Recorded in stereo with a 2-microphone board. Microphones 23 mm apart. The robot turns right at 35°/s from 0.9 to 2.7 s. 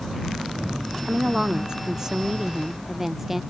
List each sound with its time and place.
1.0 s a woman speaking: 80° right; by 3.4 s 20° right